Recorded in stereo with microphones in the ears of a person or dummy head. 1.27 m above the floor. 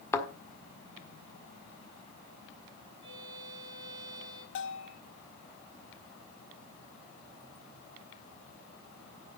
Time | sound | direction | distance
0.1 | a thud | 15° left (ahead or behind) | 1.5 m
3.0 | a violin | 25° right (ahead or behind) | 5 m
4.5 | a bell | 70° left (ahead or behind) | 1.2 m